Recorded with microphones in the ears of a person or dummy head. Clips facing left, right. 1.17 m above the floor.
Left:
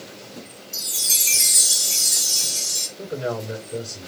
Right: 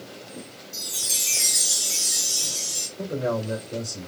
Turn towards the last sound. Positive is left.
turn(degrees=-65)  # may be behind; listen again after turning